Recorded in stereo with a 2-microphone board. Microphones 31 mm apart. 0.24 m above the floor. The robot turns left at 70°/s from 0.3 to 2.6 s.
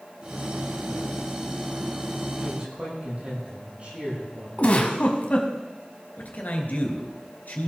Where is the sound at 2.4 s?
50° right (ahead or behind), 8.5 m; by 4.5 s 35° right (ahead or behind), 8.5 m.